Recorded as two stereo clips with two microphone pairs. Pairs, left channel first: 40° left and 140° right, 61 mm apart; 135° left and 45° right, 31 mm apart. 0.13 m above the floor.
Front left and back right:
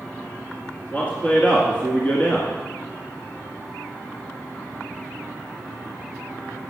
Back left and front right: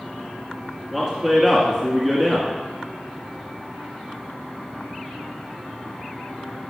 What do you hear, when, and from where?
0.9 s a man speaking: 50° left, 1.8 m